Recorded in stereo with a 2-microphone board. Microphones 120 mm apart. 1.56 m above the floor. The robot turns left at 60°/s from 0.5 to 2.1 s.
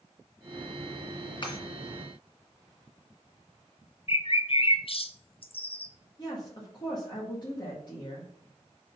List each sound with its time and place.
1.4 s breaking glass: 45° left (ahead or behind), 2.5 m; by 1.6 s 40° left (ahead or behind), 2.5 m
4.1 s a bird: 50° left (ahead or behind), 0.6 m
6.2 s a woman speaking: 35° left (ahead or behind), 1.9 m